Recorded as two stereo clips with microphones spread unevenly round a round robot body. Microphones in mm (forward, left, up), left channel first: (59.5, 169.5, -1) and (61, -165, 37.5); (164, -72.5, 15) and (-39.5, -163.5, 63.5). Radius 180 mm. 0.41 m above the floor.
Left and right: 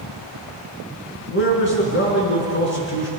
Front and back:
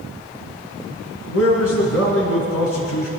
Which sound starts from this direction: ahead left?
A man speaking, at 1.3 s.